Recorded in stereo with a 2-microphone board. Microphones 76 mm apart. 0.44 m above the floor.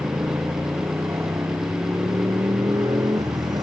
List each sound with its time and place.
0.0 s a motorcycle: 30° right (ahead or behind); by 3.6 s 55° right (ahead or behind)